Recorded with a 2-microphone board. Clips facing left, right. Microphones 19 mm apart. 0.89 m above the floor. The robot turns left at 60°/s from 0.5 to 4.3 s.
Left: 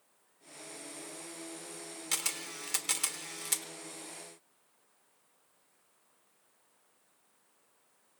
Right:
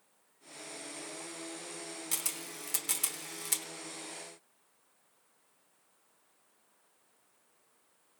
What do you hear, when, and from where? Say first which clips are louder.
2.1 s a camera shutter: left 5 dB; 25° left (ahead or behind), 1.0 m; by 3.6 s 10° left (ahead or behind), 1.0 m